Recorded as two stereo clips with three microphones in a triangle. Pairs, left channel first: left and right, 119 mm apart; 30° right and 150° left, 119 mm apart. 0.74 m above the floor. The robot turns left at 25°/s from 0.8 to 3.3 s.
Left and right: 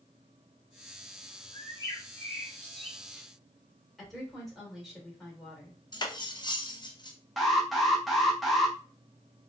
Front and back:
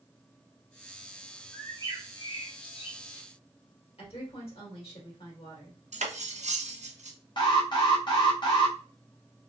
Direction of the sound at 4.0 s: Straight ahead.